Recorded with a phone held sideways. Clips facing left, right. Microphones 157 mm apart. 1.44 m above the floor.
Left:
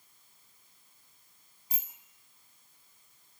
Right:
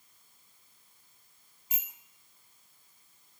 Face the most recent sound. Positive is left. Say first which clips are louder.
# left 1 dB
turn(degrees=35)  # may be behind; listen again after turning